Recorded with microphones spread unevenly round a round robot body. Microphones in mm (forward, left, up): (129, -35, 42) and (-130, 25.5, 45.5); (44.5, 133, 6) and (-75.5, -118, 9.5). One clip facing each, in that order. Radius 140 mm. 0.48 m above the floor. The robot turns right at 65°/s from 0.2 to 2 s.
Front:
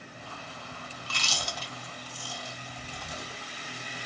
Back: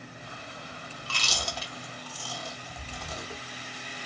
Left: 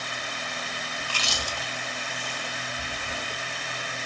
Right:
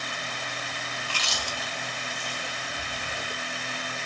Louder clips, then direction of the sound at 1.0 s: Back 3 dB, left 3 dB; 100° left.